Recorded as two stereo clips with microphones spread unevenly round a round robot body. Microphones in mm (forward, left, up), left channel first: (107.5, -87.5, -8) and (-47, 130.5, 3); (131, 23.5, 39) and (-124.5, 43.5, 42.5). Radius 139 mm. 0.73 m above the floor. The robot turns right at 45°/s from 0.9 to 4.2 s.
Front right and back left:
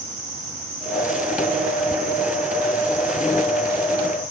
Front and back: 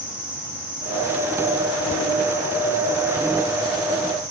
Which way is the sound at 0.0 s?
90° left.